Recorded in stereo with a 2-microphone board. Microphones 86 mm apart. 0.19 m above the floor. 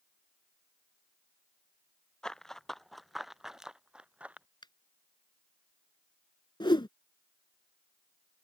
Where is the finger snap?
60° left (ahead or behind).